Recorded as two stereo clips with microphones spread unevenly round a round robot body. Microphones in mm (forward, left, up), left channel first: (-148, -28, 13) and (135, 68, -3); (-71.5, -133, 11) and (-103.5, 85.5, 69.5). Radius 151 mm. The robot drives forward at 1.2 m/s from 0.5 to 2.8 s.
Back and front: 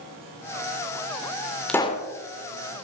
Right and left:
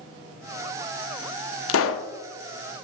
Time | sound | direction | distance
1.7 | a pop | 75° right | 0.8 m